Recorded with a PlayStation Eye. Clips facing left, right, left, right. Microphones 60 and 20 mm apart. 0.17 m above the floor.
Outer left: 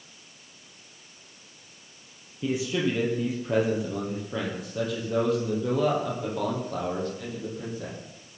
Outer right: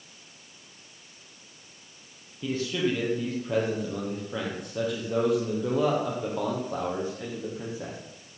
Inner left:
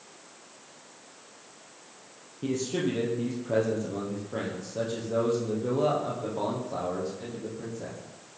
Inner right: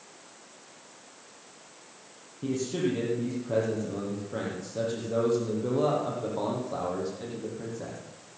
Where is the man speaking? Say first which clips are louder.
Outer left 1 dB, even; 15° left (ahead or behind), 4.5 m; by 8.0 s 20° right (ahead or behind), 7 m.